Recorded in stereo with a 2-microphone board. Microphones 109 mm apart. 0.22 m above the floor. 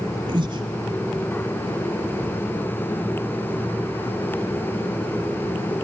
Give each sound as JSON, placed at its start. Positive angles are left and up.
{"t": 0.3, "sound": "breathing", "side_deg": -45, "distance_m": 1.2}